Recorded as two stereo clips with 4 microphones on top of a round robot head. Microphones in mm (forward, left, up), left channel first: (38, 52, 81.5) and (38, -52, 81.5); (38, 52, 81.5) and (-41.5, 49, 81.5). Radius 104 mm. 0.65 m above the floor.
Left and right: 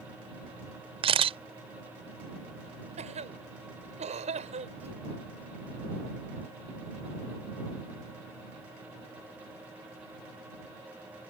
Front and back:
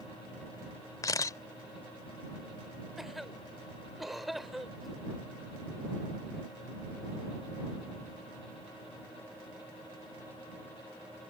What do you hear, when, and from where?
1.0 s a camera shutter: 55° right
3.0 s a cough: 90° right